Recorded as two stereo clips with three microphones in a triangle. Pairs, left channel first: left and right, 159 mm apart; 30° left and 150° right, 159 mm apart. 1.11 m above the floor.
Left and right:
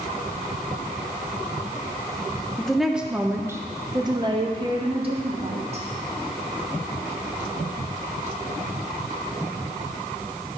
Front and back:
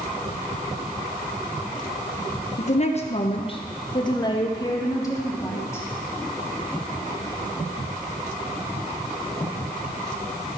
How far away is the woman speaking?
About 1.0 m.